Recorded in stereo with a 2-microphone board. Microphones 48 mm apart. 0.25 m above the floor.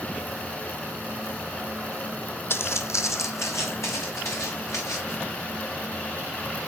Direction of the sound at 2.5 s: 55° left (ahead or behind).